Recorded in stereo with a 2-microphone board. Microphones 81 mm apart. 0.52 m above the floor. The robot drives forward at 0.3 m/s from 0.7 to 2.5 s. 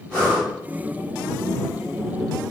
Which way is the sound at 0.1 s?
15° left (ahead or behind).